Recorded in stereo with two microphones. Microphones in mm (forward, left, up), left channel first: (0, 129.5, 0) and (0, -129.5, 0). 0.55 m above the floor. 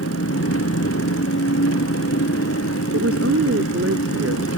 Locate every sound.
0.0 s an engine running: 65° left (ahead or behind)
2.9 s a woman speaking: 65° right (ahead or behind)